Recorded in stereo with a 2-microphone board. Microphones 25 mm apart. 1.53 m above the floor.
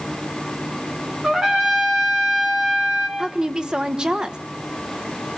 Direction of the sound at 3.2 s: 30° right (ahead or behind).